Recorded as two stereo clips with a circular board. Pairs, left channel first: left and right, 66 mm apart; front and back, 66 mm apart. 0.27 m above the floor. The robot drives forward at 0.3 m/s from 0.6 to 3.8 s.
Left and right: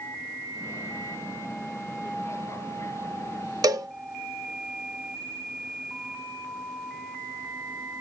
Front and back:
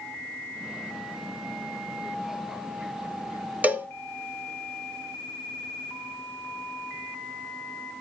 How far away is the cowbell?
About 0.6 m.